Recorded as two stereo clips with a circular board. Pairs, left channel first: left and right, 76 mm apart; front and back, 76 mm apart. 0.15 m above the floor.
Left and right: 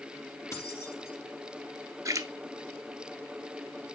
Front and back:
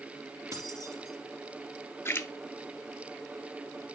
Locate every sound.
0.5 s keys jangling: 140° left, 2.5 m
2.0 s a splash: 55° right, 0.7 m